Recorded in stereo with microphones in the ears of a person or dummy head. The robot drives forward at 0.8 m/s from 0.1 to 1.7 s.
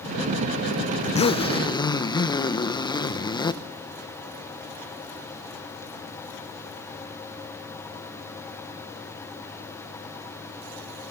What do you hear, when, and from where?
1.0 s a zipper: 40° left (ahead or behind), 0.7 m; by 3.6 s 20° left (ahead or behind), 1.1 m